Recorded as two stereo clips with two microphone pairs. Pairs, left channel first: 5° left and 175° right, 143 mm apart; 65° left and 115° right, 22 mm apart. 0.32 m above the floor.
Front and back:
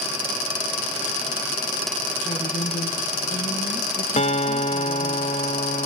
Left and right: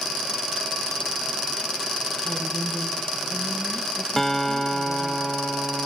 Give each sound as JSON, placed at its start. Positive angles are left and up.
{"t": 2.2, "sound": "a woman speaking", "azimuth_deg": 0, "distance_m": 5.5}
{"t": 4.2, "sound": "a guitar", "azimuth_deg": 5, "distance_m": 1.2}